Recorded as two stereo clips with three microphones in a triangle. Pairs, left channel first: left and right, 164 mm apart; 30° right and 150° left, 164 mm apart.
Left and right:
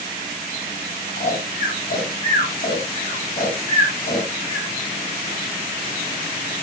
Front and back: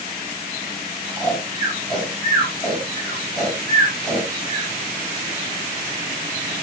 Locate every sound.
1.2 s snoring: 55° left, 8 m